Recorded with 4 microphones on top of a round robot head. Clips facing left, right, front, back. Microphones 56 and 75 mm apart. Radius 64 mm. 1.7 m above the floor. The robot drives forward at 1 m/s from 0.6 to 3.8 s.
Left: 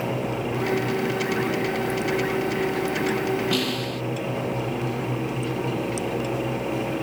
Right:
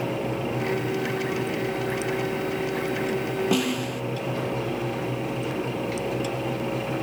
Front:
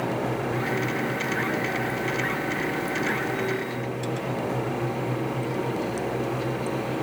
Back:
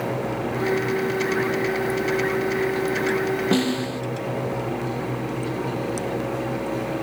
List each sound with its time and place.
3.5 s a snare drum: 160° right